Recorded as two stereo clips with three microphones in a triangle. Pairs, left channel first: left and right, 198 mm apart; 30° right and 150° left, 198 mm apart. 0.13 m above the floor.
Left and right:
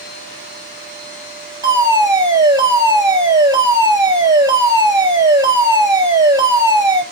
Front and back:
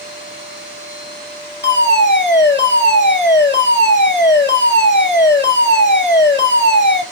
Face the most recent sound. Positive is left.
turn(degrees=-20)